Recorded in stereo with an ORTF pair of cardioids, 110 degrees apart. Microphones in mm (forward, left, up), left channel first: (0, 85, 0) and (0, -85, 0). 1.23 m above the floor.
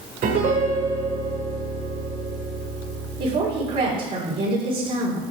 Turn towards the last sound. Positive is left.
turn(degrees=-65)